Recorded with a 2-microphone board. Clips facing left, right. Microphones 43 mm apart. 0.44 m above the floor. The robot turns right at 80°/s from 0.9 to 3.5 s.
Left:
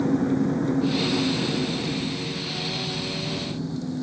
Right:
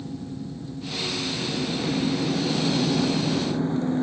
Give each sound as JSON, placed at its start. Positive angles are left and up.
{"t": 0.0, "sound": "an engine running", "azimuth_deg": 115}